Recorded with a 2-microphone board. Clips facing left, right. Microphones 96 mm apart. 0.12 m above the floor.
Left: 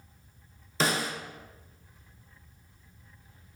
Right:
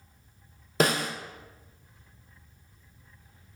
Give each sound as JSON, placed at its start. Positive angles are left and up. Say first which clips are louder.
{"t": 0.8, "sound": "a snare drum", "louder": "right 3 dB", "side_deg": -55, "distance_m": 0.9}